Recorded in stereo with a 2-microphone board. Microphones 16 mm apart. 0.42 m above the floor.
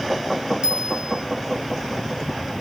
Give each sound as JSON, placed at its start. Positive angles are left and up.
{"t": 0.6, "sound": "a bell", "side_deg": -55, "distance_m": 1.7}